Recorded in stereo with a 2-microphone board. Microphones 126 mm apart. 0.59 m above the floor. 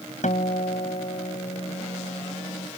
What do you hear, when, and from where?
0.2 s a guitar: 75° left (ahead or behind)